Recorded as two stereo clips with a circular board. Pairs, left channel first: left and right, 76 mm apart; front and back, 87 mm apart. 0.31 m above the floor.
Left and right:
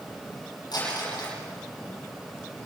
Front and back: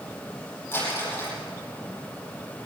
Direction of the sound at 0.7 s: 65° left.